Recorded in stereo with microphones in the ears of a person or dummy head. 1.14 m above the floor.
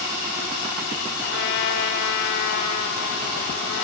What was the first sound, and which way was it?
A trumpet, 70° left (ahead or behind).